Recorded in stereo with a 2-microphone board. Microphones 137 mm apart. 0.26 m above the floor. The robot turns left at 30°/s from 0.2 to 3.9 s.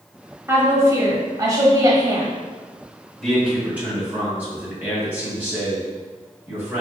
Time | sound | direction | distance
0.5 | a woman speaking | 20° right (ahead or behind) | 1.1 m
3.2 | a man speaking | centre (ahead or behind) | 2.0 m